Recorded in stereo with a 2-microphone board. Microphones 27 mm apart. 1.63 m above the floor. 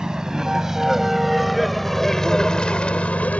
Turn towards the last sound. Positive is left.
turn(degrees=60)  # may be behind; listen again after turning